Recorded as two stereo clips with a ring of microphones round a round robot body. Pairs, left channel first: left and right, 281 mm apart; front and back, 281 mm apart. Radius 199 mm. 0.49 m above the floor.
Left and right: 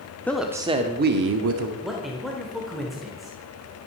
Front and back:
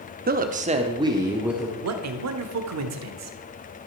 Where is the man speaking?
Straight behind, 1.2 m.